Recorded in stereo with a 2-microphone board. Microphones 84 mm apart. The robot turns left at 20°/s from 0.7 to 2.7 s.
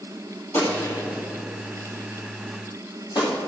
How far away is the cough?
No cough in this recording.